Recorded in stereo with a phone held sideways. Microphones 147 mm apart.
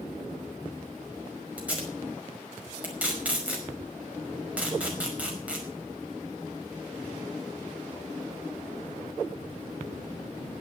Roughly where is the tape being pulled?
Centre.